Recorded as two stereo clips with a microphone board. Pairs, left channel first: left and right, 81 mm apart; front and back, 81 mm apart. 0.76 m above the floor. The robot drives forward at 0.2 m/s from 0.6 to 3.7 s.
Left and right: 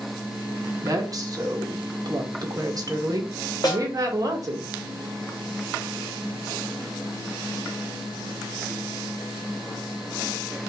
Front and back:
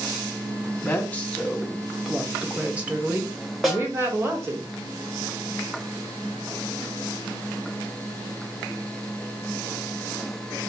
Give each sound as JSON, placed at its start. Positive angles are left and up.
{"t": 0.8, "sound": "a woman speaking", "azimuth_deg": -65, "distance_m": 0.6}
{"t": 3.6, "sound": "a snare drum", "azimuth_deg": 95, "distance_m": 1.0}